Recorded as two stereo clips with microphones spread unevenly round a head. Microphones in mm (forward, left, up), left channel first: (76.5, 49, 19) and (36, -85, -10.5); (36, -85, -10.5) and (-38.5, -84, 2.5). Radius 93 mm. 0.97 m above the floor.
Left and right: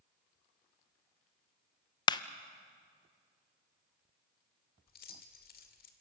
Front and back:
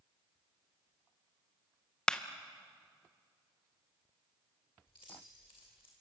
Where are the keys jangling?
65° left, 2 m.